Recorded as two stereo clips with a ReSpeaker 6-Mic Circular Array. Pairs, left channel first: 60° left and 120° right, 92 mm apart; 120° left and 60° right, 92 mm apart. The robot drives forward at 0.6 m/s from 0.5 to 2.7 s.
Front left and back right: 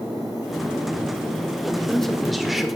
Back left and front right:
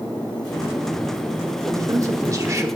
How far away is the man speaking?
About 1.6 m.